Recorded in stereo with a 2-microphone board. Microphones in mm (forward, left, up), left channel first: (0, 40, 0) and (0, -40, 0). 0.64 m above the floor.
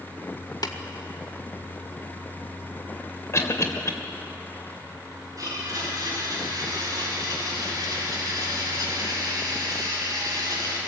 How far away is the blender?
About 6 m.